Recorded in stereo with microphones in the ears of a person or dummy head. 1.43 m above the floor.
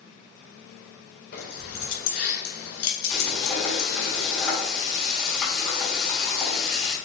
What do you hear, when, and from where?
1.3 s keys jangling: 50° left (ahead or behind), 3.5 m; by 3.9 s 65° left (ahead or behind), 1.7 m
3.1 s frying: 10° left (ahead or behind), 3 m